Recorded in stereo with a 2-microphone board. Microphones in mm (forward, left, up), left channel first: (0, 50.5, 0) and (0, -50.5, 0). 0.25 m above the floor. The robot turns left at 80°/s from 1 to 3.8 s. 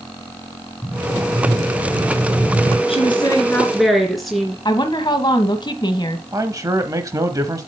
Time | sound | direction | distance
0.8 | an explosion | 85° left | 2 m
2.9 | a woman speaking | 75° left | 2.5 m
4.7 | a woman speaking | 50° left (ahead or behind) | 1.3 m
6.3 | a man speaking | 35° right (ahead or behind) | 1.1 m